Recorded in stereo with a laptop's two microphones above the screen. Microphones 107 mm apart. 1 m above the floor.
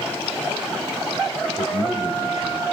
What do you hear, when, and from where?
1.6 s a man speaking: 55° left (ahead or behind), 5 m; by 2.6 s 65° left (ahead or behind), 6.5 m